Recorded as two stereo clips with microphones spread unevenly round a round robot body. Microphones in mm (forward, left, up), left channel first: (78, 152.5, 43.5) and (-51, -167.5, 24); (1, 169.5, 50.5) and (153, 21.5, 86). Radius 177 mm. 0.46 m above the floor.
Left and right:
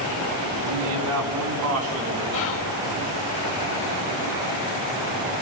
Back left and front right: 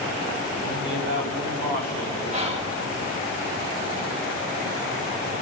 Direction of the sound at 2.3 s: 20° left.